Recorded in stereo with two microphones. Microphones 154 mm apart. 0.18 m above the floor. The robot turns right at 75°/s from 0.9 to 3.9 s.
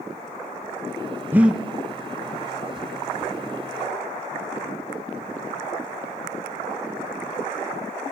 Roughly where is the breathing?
Centre.